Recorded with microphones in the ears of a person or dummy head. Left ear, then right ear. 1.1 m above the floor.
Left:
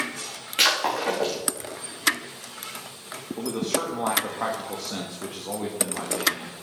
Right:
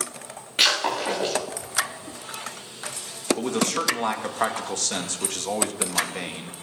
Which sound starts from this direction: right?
A man speaking, at 3.4 s.